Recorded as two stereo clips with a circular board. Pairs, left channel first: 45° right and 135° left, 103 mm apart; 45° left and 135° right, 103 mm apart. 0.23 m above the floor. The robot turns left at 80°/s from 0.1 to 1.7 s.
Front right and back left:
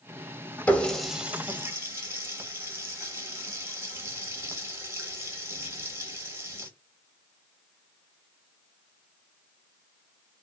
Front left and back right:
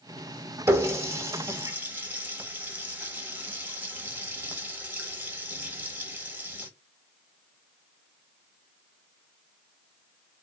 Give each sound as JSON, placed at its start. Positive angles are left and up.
{"t": 0.7, "sound": "a running tap", "azimuth_deg": -105, "distance_m": 0.8}